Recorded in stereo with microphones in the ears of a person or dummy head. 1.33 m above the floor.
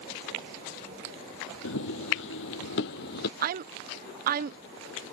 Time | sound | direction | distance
1.6 | running footsteps | 60° left (ahead or behind) | ?
3.4 | a woman speaking | 45° right (ahead or behind) | ?